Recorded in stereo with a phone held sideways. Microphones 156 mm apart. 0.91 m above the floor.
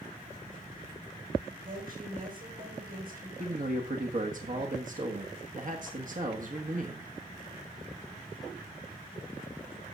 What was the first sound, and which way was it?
A woman speaking, 65° right (ahead or behind).